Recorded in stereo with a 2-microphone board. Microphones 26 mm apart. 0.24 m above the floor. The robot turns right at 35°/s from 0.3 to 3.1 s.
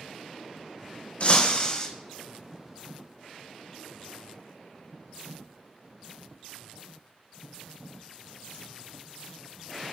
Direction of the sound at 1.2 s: 50° left (ahead or behind).